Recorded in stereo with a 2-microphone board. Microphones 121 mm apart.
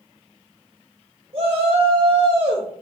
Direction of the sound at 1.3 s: 55° right (ahead or behind).